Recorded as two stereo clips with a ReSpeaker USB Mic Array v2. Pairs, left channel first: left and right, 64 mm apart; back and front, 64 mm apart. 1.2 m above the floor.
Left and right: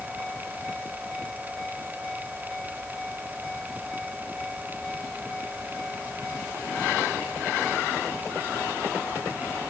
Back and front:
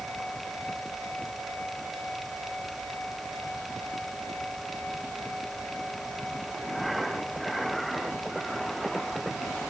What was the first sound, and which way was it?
Only background noise.